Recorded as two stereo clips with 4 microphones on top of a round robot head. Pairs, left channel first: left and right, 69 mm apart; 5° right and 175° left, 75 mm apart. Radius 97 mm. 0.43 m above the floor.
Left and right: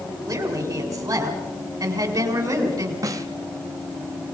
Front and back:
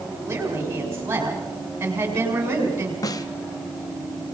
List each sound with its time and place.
0.3 s a woman speaking: 120° right, 5.5 m
3.0 s a snare drum: 45° right, 1.0 m